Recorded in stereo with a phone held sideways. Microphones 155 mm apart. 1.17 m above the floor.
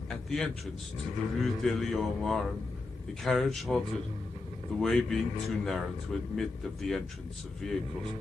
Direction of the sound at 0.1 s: 5° left (ahead or behind).